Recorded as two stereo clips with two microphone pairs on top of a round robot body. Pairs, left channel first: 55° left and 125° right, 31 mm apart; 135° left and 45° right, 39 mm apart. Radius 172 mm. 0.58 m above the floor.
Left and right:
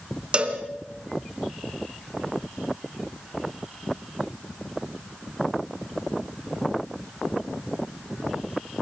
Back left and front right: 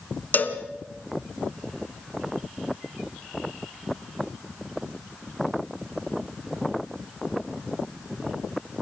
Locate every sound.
0.3 s a cowbell: 175° left, 1.9 m